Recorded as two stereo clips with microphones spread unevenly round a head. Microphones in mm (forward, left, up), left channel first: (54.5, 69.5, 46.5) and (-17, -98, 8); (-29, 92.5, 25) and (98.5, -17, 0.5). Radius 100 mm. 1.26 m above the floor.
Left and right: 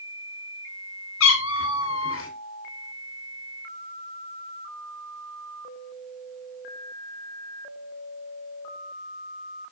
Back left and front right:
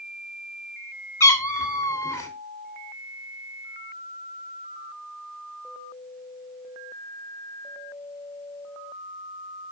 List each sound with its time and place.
1.2 s a cat meowing: 70° left, 2.5 m